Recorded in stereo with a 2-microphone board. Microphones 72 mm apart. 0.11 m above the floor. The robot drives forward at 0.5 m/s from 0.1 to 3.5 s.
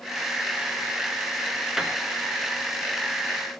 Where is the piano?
5° right (ahead or behind), 0.6 m.